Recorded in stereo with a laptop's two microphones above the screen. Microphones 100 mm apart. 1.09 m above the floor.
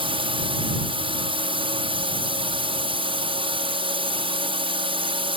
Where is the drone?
55° right (ahead or behind).